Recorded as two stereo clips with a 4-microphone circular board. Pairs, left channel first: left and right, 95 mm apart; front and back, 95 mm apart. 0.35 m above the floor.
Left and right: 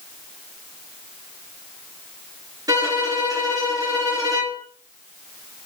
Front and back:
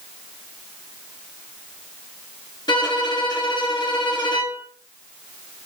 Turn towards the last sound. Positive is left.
turn(degrees=-40)